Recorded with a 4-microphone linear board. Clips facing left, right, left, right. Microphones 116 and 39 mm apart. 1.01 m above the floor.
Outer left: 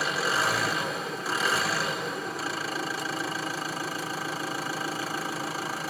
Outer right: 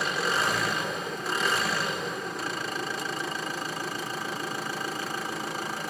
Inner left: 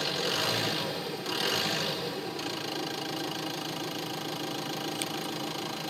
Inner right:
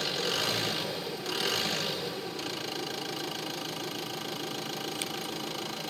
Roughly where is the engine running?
Centre.